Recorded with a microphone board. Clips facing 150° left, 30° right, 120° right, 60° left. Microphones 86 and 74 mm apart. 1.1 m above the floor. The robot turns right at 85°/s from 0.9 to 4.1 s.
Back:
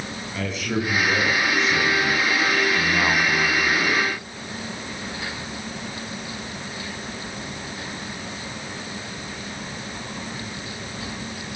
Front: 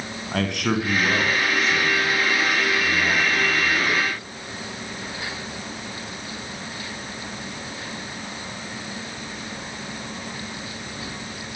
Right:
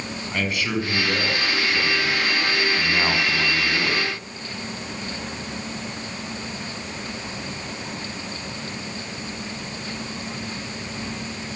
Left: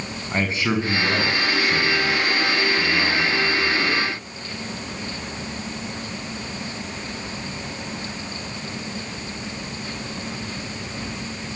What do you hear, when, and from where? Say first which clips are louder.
0.3 s a man speaking: front 3 dB, left 3 dB; 5° right, 8 m; by 4.0 s 100° right, 8 m